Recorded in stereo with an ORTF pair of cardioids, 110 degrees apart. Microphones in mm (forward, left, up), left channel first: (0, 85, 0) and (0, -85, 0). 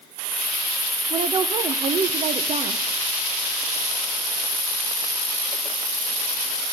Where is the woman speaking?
40° right, 0.7 m.